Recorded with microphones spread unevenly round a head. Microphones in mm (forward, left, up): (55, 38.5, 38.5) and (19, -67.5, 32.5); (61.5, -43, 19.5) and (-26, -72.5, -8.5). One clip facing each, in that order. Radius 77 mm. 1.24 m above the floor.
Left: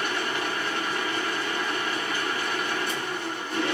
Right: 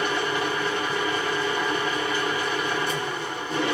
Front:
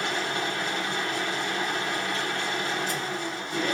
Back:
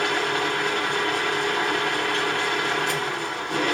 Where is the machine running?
130° right, 2 m.